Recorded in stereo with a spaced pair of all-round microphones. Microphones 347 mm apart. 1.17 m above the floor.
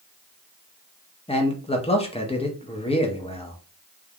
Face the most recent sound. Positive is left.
turn(degrees=15)  # may be behind; listen again after turning